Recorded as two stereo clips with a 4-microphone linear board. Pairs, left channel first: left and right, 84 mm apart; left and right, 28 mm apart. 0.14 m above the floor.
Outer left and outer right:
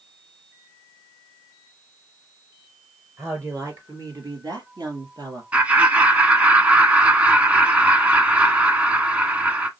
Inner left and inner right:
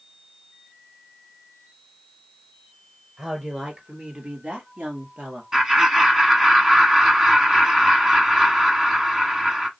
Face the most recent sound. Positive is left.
turn(degrees=-15)  # may be behind; listen again after turning